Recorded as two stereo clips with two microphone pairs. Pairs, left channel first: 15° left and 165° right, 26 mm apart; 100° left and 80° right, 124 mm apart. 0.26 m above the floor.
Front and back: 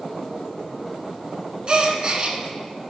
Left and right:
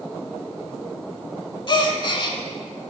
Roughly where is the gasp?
Behind left.